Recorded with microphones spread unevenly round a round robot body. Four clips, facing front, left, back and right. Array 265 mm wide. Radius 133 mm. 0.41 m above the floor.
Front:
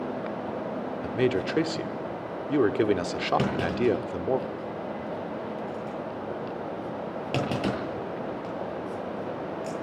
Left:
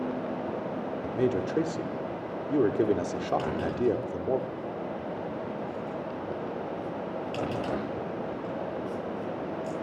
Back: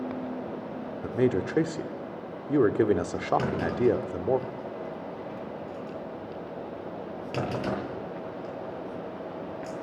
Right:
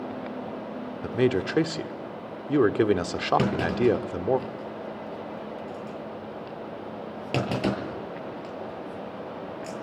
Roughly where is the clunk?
Ahead right.